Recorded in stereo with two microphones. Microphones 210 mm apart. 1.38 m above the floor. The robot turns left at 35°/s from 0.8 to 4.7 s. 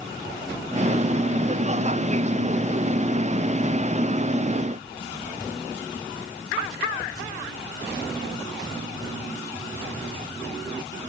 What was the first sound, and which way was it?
Only background noise.